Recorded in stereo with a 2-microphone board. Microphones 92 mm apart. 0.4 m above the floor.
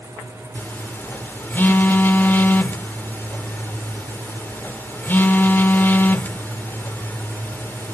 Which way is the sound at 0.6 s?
20° left (ahead or behind).